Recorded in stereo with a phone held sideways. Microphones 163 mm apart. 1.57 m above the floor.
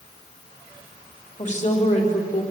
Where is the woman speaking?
45° left (ahead or behind), 4 m; by 2.4 s 55° left (ahead or behind), 5.5 m.